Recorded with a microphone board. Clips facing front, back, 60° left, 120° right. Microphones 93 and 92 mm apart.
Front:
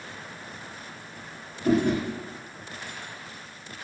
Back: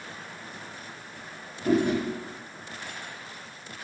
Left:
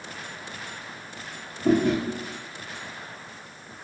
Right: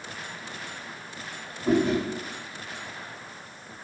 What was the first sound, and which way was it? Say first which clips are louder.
Chewing: front 1 dB, left 2 dB; 90° left.